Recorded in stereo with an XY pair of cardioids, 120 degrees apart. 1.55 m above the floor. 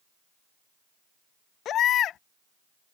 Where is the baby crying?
65° left.